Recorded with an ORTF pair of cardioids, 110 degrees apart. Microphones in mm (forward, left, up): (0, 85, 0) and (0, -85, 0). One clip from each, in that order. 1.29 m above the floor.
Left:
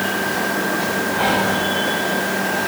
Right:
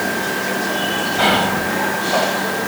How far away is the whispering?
About 1.3 m.